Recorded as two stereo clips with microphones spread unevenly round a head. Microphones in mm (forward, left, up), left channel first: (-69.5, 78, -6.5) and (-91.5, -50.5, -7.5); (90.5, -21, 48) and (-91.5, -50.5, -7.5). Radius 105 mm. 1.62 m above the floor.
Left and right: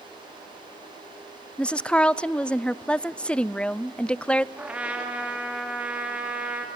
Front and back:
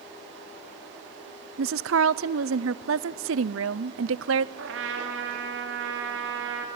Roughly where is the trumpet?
Behind.